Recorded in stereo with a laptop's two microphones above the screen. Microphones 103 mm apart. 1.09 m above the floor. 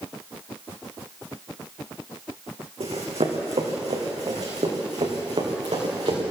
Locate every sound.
2.8 s running footsteps: 75° right (ahead or behind), 4 m; by 6.2 s 70° right (ahead or behind), 5.5 m